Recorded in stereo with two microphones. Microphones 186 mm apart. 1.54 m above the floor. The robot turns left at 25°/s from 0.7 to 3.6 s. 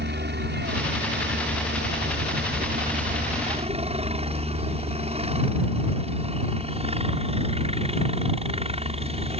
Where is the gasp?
No gasp in this recording.